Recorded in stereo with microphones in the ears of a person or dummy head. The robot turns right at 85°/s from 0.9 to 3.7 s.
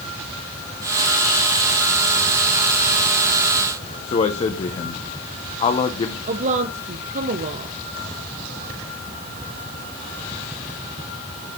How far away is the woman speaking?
About 1.1 m.